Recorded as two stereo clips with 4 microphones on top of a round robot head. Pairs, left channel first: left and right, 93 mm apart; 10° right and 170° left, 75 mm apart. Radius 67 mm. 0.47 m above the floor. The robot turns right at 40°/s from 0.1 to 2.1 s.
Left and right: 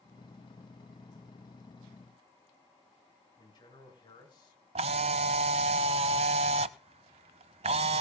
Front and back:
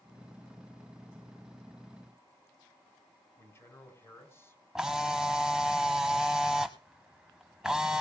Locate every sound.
3.4 s a man speaking: 45° left, 4 m
4.8 s a camera shutter: 105° right, 0.7 m